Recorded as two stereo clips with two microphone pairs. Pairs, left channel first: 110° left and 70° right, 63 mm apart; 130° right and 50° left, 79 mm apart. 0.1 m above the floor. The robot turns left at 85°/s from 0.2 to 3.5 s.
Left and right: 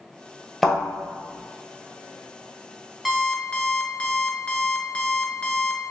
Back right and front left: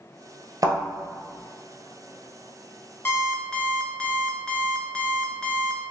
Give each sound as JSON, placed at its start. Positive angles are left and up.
{"t": 0.6, "sound": "a thud", "azimuth_deg": 25, "distance_m": 1.2}
{"t": 3.0, "sound": "an alarm clock", "azimuth_deg": -160, "distance_m": 0.6}